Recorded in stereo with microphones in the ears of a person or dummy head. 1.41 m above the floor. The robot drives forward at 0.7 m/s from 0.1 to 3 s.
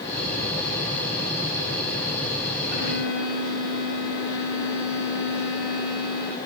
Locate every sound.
2.7 s a violin: 45° left (ahead or behind), 1.8 m